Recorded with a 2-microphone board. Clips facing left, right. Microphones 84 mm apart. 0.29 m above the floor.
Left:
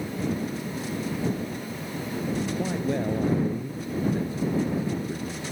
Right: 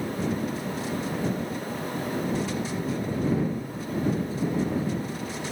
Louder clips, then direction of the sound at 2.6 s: Left 3 dB; 65° left (ahead or behind).